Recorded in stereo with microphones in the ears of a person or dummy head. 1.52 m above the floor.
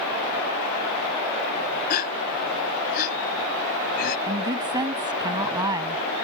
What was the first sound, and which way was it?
A gasp, 50° left (ahead or behind).